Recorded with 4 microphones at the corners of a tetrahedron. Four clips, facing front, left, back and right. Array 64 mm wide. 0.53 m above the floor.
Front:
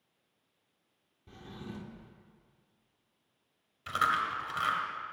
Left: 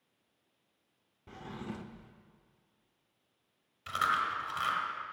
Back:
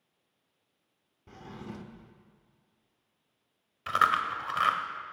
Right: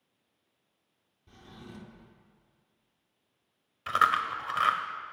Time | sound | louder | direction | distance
1.3 | a drawer | left 6 dB, back 2 dB | 120° left | 0.8 m
3.9 | chewing | right 5 dB, back 4 dB | 135° right | 1.1 m